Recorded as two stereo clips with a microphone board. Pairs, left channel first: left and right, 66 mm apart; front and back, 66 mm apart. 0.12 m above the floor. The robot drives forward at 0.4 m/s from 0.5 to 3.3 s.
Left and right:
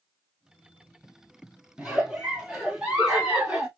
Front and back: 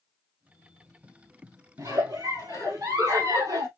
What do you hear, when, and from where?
1.8 s a giggle: 165° right, 1.6 m; by 3.7 s 170° right, 2 m